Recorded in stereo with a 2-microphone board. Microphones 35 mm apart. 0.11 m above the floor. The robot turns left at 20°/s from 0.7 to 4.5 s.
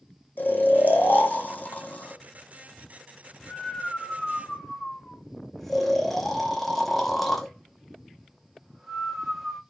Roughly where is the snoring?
Left.